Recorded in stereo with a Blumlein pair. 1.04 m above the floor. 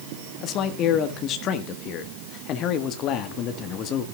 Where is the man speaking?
35° left, 1.4 m.